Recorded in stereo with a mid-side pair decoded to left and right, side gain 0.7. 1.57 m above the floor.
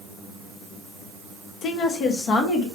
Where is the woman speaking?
45° left, 0.9 m; by 2.7 s 40° left, 2 m.